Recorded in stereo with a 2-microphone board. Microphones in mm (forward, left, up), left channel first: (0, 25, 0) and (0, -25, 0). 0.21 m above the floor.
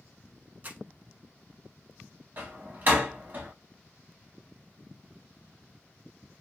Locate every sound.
0.6 s crumpling: 35° right (ahead or behind), 0.5 m
2.4 s a door slam: 35° right (ahead or behind), 0.8 m